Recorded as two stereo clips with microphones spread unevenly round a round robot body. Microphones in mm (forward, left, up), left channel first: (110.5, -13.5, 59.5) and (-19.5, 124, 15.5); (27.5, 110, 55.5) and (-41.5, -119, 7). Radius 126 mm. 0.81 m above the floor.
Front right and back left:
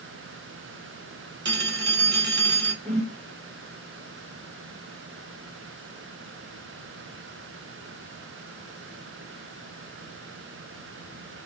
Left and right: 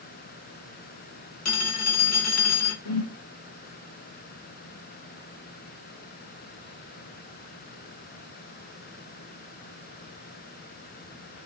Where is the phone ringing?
105° left, 1.0 m.